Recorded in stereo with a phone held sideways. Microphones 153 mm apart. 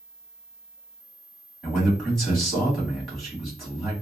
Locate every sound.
1.6 s a man speaking: centre (ahead or behind), 2 m